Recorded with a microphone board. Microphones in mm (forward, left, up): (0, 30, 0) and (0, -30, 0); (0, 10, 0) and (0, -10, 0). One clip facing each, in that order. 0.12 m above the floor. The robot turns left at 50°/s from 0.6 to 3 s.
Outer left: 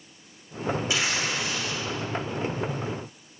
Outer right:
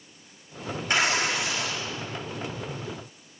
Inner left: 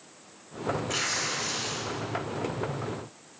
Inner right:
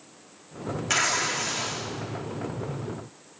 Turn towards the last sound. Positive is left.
turn(degrees=-160)